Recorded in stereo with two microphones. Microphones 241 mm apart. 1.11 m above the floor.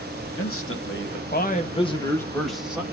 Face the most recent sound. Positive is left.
turn(degrees=-5)  # may be behind; listen again after turning